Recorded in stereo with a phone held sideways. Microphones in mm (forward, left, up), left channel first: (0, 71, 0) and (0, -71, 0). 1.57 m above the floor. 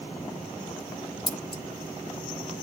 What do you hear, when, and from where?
1.3 s scissors: 35° left (ahead or behind), 0.5 m